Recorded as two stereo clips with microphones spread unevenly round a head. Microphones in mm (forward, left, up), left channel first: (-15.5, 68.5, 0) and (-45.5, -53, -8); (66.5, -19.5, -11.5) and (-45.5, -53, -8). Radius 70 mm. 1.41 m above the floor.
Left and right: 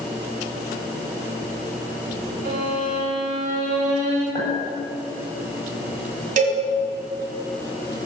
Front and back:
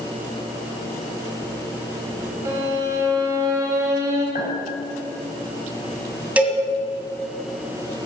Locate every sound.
2.5 s a violin: 110° right, 2 m
4.3 s a clink: 5° left, 4.5 m
6.4 s a cowbell: 90° right, 2 m